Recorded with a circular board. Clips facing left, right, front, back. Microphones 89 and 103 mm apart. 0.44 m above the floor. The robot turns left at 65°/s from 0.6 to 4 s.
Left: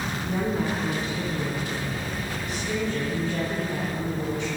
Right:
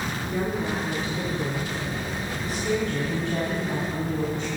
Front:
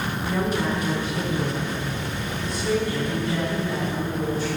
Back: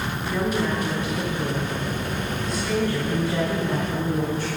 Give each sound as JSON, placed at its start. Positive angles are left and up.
{"t": 0.3, "sound": "a woman speaking", "azimuth_deg": 70, "distance_m": 3.0}